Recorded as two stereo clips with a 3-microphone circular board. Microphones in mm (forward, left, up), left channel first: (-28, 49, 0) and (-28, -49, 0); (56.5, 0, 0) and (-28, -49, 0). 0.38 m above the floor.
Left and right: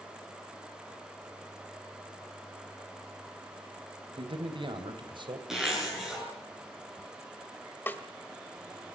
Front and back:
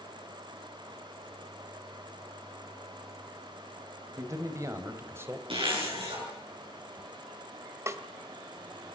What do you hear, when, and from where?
4.2 s a man speaking: 100° right, 2.5 m; by 5.4 s 90° right, 1.9 m
5.5 s a zipper: 175° right, 6.5 m
7.9 s a snare drum: 155° left, 1.3 m